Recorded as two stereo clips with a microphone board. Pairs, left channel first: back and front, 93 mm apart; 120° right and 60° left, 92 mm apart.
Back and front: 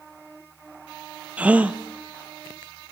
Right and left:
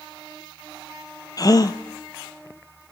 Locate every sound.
1.4 s a gasp: 75° right, 0.7 m